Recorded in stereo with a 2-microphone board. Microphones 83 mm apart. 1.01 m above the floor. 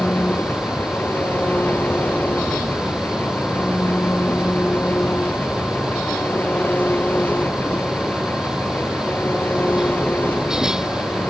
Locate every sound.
0.0 s an engine running: 20° left (ahead or behind)